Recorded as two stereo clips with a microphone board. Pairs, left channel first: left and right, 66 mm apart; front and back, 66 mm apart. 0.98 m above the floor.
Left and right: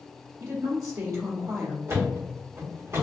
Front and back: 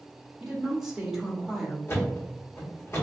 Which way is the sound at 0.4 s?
100° right.